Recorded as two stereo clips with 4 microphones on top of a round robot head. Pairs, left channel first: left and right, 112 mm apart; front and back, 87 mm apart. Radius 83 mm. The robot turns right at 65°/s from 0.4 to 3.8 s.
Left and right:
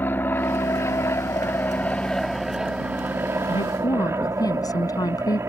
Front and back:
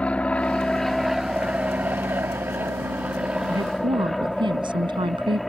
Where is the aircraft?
50° left; by 5.5 s 90° right.